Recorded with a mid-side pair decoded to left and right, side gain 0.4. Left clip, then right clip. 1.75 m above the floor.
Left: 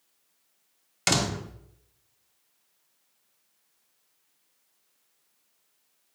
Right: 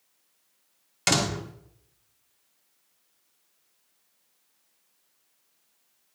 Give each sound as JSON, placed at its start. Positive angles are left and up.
{"t": 1.1, "sound": "a door slam", "azimuth_deg": 10, "distance_m": 1.6}